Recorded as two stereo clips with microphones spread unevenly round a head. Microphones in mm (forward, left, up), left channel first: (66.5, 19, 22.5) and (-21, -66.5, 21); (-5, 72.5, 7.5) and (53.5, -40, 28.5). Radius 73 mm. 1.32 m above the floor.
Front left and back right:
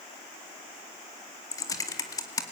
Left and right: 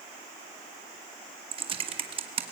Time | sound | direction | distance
1.5 | typing on a keyboard | 20° right | 1.9 m